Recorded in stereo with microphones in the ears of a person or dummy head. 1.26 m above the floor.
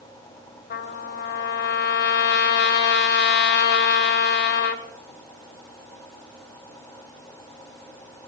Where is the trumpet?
60° left (ahead or behind), 1.3 m.